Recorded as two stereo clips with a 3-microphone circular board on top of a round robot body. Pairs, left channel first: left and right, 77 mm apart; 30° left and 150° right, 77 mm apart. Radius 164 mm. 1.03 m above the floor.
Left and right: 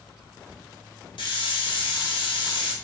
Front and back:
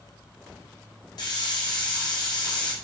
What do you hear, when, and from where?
1.2 s a hiss: 70° left, 1.6 m